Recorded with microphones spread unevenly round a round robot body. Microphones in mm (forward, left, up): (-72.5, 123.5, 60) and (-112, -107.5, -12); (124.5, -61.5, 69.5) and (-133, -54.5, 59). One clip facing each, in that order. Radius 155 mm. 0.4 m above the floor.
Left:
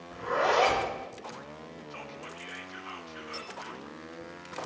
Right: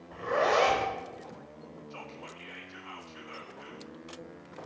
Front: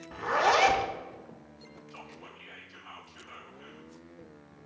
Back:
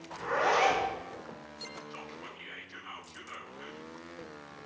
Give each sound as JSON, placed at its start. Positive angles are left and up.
{"t": 0.1, "sound": "a zipper", "azimuth_deg": -20, "distance_m": 1.0}
{"t": 1.9, "sound": "whispering", "azimuth_deg": 165, "distance_m": 0.8}